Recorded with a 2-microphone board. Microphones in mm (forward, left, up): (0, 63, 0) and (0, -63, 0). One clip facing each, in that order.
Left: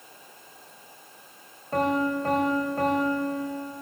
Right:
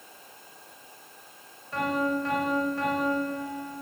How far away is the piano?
About 4 m.